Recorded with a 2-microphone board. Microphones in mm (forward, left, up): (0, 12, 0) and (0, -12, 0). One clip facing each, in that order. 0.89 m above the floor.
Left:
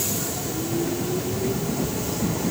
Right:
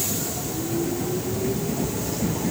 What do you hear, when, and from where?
Only background noise.